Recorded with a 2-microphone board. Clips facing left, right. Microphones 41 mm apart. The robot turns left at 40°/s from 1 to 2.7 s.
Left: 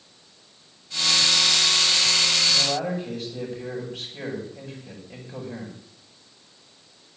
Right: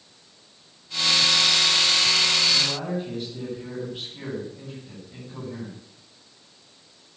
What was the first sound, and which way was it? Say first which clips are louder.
A man speaking: left 1 dB; 75° left (ahead or behind).